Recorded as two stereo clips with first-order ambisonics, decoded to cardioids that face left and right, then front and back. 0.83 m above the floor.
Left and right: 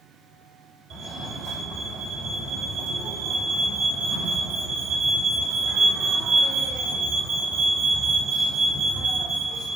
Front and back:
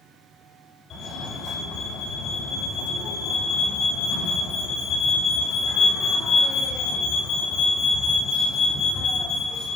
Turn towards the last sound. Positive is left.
turn(degrees=-50)